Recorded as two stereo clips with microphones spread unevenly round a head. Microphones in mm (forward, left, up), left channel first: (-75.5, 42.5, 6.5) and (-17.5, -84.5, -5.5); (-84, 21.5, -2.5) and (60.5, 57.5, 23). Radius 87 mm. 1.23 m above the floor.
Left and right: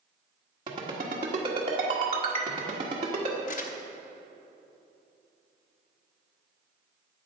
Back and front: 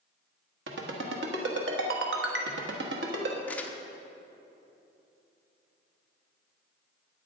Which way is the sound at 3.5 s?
110° left.